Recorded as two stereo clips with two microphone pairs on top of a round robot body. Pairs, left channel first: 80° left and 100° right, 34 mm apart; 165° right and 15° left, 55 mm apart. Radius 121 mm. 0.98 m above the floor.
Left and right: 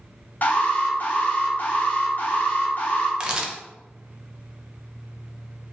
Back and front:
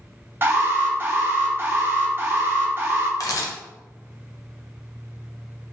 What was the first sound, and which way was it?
An alarm, 50° left.